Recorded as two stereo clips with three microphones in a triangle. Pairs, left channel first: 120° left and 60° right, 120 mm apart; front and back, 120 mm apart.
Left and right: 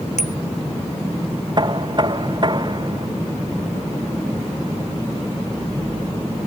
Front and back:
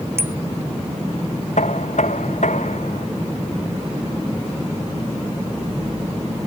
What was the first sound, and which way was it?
A bicycle bell, 110° left.